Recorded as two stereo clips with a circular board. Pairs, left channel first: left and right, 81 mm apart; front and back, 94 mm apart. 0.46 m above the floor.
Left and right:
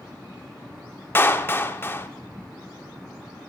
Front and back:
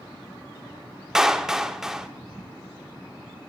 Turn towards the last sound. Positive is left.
turn(degrees=100)